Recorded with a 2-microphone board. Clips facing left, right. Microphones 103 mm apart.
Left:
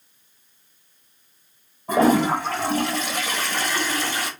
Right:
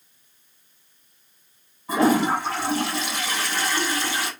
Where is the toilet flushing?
50° left (ahead or behind), 1.6 m.